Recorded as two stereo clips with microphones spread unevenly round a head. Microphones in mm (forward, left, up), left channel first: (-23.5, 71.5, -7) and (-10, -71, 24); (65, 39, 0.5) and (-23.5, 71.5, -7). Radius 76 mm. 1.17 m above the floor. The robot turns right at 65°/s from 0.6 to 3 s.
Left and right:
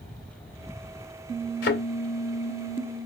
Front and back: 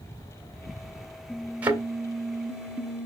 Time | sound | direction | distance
1.6 | a thud | 85° left | 2 m